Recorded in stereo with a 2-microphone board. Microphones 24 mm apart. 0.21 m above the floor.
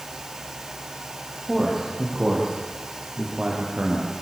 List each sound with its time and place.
1.5 s a man speaking: 10° right (ahead or behind), 8.5 m; by 4.1 s 35° right (ahead or behind), 7 m